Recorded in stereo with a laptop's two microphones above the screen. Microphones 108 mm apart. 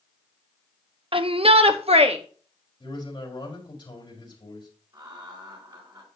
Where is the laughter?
40° right (ahead or behind), 3.5 m.